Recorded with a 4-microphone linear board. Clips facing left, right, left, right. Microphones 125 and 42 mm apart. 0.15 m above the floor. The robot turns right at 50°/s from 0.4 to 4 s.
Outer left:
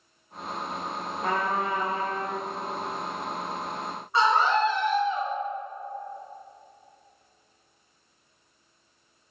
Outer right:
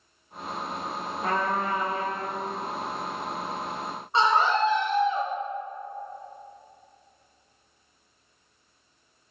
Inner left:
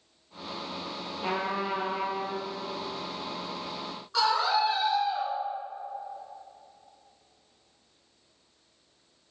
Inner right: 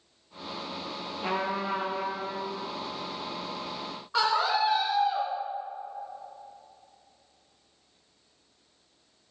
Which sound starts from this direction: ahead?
A trumpet, at 1.2 s.